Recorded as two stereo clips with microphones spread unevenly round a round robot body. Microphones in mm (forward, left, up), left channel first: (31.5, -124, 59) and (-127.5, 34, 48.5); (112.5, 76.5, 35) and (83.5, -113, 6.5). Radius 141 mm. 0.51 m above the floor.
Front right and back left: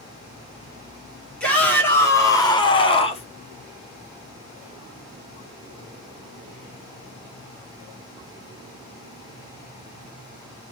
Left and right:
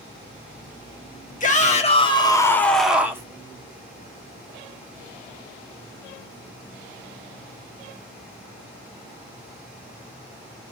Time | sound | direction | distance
1.4 | a shout | 40° left | 1.5 m